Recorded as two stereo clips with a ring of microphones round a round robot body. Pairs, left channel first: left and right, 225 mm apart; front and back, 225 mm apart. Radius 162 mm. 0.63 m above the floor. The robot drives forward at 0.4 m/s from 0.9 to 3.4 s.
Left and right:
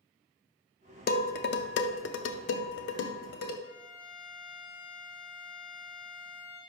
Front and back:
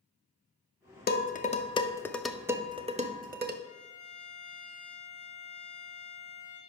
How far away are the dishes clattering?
About 0.7 m.